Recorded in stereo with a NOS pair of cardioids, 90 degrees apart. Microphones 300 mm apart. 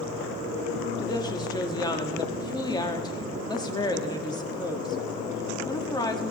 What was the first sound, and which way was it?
A woman speaking, 15° left.